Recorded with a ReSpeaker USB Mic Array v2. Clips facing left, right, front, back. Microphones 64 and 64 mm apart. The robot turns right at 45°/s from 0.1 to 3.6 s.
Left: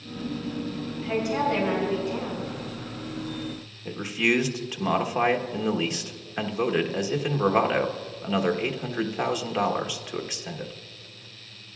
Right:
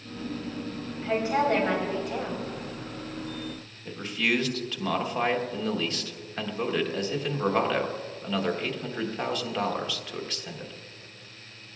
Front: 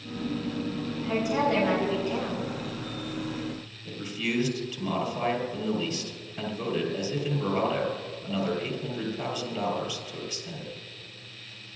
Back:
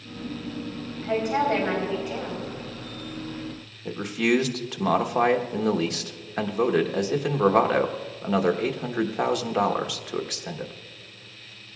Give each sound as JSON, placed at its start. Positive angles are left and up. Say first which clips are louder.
{"t": 1.0, "sound": "a woman speaking", "louder": "right 1 dB, back 3 dB", "azimuth_deg": -155, "distance_m": 4.0}
{"t": 3.9, "sound": "a man speaking", "louder": "left 3 dB, back 9 dB", "azimuth_deg": 165, "distance_m": 1.2}